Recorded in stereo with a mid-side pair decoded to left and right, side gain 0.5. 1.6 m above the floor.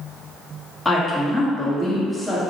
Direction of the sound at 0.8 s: 5° left.